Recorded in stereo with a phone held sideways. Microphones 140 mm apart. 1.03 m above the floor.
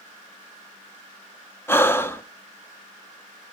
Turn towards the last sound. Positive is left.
turn(degrees=15)  # may be behind; listen again after turning